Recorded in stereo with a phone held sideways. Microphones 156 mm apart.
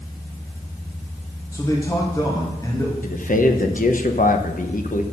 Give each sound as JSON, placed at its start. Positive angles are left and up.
{"t": 1.5, "sound": "a man speaking", "side_deg": 20, "distance_m": 1.2}
{"t": 3.0, "sound": "a man speaking", "side_deg": 60, "distance_m": 0.8}